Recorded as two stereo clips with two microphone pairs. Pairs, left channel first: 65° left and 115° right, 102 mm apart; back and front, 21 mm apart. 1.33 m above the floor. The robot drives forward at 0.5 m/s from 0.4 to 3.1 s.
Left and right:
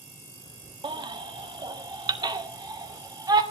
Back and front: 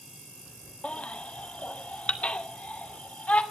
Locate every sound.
0.8 s a baby crying: 150° right, 1.4 m; by 3.4 s 165° right, 2.5 m